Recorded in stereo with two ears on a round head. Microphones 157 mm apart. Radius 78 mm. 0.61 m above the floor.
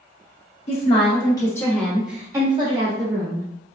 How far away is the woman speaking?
About 1.5 m.